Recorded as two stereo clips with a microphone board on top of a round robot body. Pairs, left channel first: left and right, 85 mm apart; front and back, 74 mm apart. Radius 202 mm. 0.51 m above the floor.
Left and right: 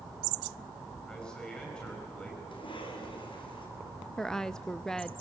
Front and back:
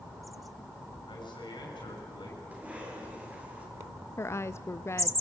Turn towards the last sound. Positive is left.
turn(degrees=10)